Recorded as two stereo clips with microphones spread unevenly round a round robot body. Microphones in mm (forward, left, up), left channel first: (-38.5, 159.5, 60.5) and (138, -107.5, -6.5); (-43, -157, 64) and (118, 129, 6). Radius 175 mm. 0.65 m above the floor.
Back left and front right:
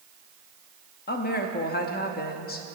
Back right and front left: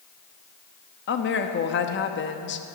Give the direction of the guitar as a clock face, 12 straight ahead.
I don't hear a guitar.